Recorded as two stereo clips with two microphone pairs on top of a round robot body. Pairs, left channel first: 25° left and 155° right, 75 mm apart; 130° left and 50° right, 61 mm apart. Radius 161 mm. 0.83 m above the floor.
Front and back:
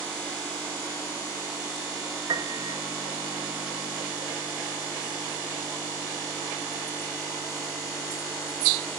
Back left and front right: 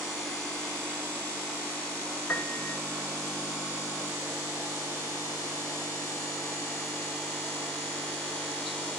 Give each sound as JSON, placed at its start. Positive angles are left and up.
{"t": 2.3, "sound": "a piano", "azimuth_deg": -175, "distance_m": 1.1}